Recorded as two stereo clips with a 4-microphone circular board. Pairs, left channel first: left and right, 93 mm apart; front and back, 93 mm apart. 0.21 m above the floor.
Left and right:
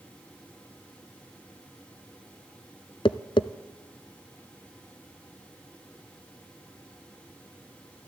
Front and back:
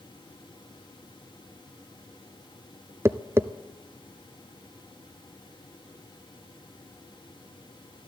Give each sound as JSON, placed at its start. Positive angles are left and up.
{"t": 3.0, "sound": "tapping", "azimuth_deg": 120, "distance_m": 0.5}